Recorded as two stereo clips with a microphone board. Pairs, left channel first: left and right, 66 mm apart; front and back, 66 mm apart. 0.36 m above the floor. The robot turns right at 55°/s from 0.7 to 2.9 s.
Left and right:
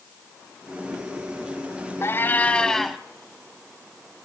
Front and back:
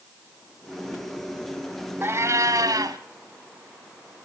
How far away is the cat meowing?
About 1.1 m.